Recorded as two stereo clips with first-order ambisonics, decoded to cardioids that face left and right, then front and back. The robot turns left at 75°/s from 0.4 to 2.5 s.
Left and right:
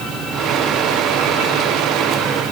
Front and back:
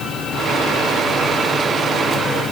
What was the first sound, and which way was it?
Only background noise.